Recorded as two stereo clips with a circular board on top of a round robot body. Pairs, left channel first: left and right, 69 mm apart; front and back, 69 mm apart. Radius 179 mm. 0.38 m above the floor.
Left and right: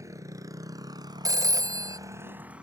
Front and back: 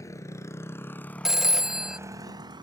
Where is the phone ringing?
95° right.